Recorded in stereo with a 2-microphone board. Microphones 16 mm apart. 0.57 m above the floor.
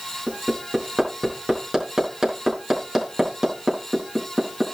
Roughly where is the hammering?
Right.